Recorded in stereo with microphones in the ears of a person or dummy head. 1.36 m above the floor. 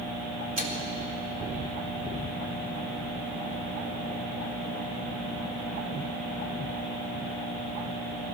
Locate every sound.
0.6 s a microwave: 45° right (ahead or behind), 2 m